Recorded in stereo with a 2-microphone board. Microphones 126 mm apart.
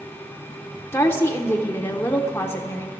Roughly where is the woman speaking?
Centre.